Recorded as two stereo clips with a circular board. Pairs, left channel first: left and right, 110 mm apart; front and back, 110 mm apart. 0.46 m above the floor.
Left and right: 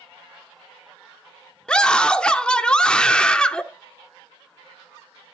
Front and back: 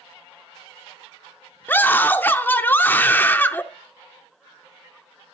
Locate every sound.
1.7 s a scream: 25° left, 0.7 m